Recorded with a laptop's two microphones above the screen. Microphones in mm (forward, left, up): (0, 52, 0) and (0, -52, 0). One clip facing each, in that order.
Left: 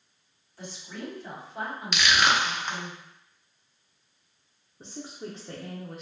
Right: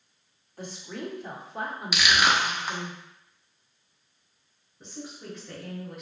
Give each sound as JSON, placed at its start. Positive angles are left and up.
{"t": 0.6, "sound": "a woman speaking", "side_deg": -50, "distance_m": 1.6}
{"t": 1.9, "sound": "crushing", "side_deg": -5, "distance_m": 0.6}
{"t": 4.8, "sound": "a woman speaking", "side_deg": 30, "distance_m": 0.7}